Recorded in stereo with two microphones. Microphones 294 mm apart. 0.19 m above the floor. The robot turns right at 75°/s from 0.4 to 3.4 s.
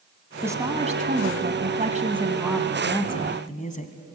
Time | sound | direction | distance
0.4 | a woman speaking | 165° right | 1.5 m